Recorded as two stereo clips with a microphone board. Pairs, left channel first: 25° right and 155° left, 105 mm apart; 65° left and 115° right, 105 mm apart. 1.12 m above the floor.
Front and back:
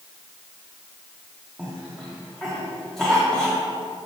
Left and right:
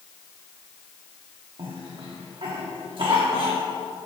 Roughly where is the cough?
Right.